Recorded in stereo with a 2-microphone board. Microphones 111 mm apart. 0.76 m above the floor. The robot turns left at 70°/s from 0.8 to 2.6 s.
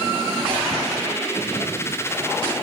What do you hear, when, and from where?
0.4 s whispering: 50° right (ahead or behind), 1.7 m